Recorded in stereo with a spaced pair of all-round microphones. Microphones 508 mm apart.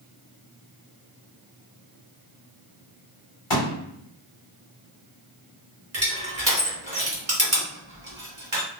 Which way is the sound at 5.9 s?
30° right (ahead or behind).